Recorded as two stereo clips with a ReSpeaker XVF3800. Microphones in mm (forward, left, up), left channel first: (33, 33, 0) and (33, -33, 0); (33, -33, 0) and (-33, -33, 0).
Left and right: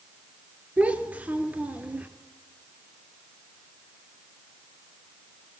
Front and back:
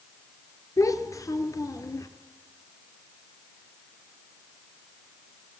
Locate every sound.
0.8 s a child speaking: 25° right, 1.8 m